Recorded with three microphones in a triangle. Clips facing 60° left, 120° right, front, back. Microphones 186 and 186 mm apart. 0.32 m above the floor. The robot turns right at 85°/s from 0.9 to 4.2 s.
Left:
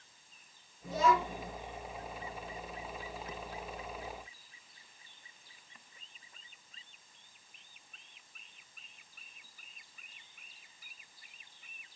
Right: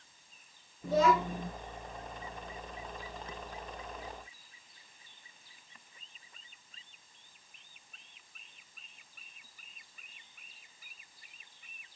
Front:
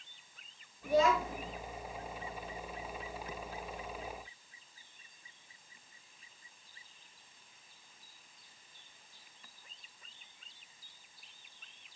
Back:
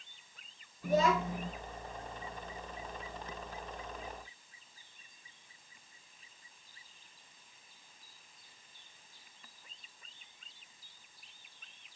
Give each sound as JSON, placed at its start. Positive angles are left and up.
{"t": 0.8, "sound": "a child speaking", "azimuth_deg": -140, "distance_m": 3.0}